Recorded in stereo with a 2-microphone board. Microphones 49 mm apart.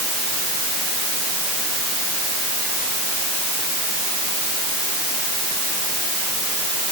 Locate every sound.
Only background noise.